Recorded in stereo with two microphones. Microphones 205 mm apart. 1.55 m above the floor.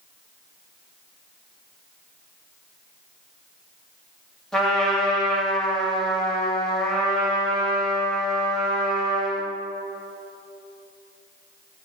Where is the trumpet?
5° left (ahead or behind), 2 m.